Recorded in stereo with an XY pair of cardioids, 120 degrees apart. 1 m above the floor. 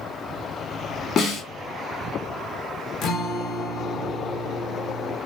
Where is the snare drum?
55° left, 1.1 m.